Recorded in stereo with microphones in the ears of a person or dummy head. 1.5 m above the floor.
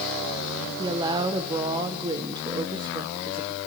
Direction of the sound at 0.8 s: 25° right (ahead or behind).